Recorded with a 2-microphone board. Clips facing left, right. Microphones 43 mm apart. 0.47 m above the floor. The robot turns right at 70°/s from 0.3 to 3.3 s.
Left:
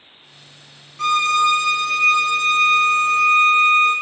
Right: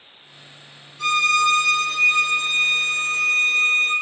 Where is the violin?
115° left, 0.6 m; by 3.9 s 85° right, 0.6 m.